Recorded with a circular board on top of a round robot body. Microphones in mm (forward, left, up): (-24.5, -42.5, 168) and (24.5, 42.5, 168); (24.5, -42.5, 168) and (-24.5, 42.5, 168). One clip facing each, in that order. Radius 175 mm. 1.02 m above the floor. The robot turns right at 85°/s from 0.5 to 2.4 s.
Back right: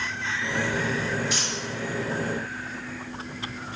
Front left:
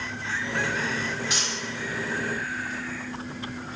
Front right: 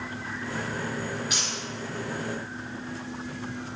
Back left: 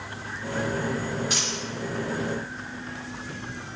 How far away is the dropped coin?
About 2 m.